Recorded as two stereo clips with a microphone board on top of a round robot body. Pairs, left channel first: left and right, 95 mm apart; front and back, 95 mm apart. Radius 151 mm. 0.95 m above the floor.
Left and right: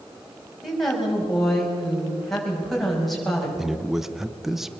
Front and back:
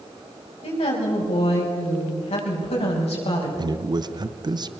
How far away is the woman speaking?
About 6 m.